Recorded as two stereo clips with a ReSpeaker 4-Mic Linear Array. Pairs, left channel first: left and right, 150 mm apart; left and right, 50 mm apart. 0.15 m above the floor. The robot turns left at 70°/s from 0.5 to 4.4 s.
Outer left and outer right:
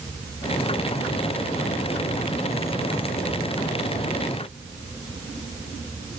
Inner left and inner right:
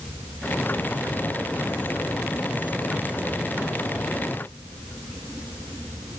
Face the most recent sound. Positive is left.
No sound to turn to.